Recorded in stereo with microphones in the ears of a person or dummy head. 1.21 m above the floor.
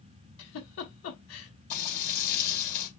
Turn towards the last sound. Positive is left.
turn(degrees=45)  # may be behind; listen again after turning